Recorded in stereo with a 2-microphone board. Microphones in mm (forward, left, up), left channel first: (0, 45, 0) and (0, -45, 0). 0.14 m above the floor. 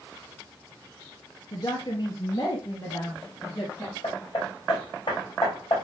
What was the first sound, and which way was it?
A woman speaking, 45° left (ahead or behind).